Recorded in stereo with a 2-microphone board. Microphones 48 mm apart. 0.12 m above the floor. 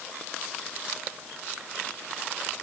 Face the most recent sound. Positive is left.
No sound to turn to.